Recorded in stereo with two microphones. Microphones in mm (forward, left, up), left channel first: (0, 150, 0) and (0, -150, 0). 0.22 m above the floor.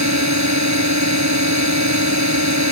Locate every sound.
0.0 s a drone: 65° right (ahead or behind)